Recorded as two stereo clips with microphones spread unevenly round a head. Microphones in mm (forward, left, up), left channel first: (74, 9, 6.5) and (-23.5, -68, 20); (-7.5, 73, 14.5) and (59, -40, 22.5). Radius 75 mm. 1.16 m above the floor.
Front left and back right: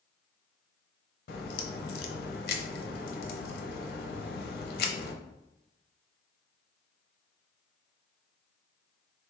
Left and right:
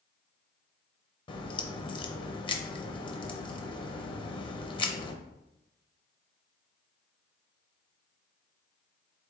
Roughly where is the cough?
I don't hear a cough.